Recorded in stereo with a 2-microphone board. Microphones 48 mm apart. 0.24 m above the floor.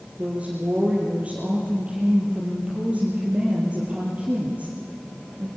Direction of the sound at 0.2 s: 25° right (ahead or behind).